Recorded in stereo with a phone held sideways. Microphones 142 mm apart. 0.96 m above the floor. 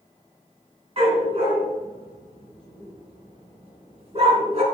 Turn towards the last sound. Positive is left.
turn(degrees=-45)  # may be behind; listen again after turning